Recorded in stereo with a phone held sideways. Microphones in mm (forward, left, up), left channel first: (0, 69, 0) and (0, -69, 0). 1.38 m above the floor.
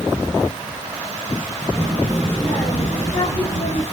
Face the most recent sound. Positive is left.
turn(degrees=30)  # may be behind; listen again after turning